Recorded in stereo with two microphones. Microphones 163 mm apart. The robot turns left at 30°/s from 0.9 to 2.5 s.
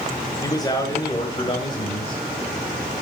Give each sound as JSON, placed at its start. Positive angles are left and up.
{"t": 0.4, "sound": "a man speaking", "azimuth_deg": 135, "distance_m": 1.5}